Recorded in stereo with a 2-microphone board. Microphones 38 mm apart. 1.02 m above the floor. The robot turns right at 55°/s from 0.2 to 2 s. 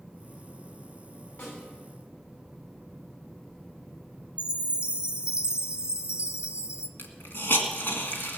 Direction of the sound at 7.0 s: 65° left (ahead or behind).